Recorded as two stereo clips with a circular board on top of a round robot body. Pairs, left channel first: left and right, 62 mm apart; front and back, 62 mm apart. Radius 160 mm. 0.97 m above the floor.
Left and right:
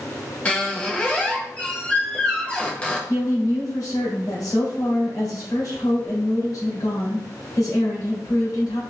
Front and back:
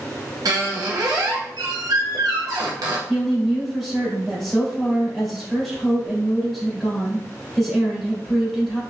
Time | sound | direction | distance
0.5 | a squeak | 160° left | 0.7 m
3.1 | a woman speaking | 90° left | 3 m